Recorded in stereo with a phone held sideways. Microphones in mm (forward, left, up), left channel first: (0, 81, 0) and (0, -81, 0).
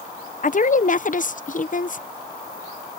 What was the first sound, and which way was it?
A woman speaking, 50° left (ahead or behind).